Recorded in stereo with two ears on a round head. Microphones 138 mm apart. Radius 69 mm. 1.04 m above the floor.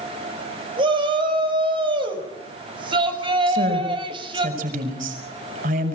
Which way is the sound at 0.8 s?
35° right (ahead or behind).